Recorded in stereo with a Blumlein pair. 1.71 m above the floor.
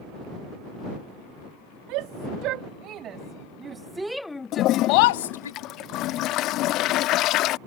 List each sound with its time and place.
1.9 s a shout: 40° right; by 5.5 s 70° left
4.5 s a toilet flushing: 35° left